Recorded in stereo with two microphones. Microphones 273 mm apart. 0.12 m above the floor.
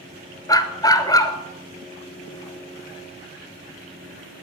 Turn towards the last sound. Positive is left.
turn(degrees=15)  # may be behind; listen again after turning